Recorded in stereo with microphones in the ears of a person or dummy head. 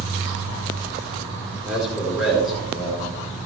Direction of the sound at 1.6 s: 5° right (ahead or behind).